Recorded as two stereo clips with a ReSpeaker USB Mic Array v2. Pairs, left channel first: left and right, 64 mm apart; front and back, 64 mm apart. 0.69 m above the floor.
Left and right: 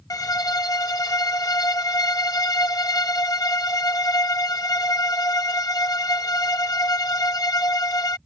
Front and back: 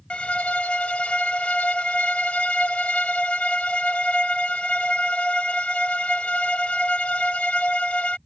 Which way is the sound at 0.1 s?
70° left.